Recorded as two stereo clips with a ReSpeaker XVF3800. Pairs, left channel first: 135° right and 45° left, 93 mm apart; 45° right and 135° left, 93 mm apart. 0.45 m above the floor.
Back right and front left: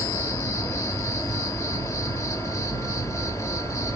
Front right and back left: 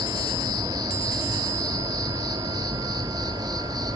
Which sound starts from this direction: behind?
An insect, at 0.0 s.